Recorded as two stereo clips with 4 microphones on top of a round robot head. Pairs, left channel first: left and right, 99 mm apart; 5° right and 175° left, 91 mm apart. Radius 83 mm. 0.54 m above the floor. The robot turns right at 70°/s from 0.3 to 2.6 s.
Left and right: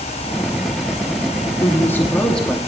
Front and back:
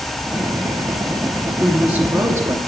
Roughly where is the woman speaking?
Behind left.